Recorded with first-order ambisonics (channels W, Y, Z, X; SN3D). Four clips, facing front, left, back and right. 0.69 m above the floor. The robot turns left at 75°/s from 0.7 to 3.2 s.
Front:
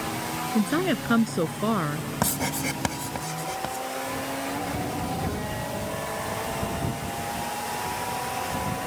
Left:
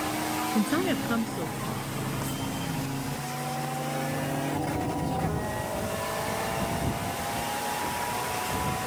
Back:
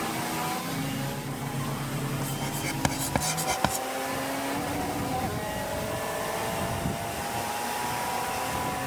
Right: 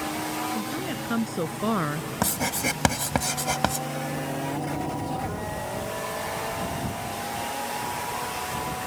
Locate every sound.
0.6 s a woman speaking: 30° left; by 2.1 s 75° right
2.2 s writing: 45° right; by 3.9 s 120° right